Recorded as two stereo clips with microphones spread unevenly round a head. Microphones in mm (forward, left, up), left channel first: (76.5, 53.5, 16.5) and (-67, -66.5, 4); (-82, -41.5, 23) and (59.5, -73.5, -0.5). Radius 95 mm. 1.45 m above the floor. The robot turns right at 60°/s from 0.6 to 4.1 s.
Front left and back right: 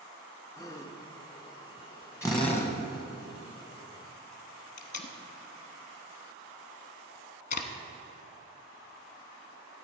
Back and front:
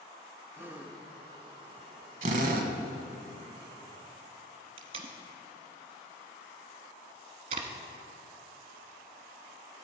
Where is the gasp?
60° left, 0.7 m; by 1.0 s 85° left, 0.7 m.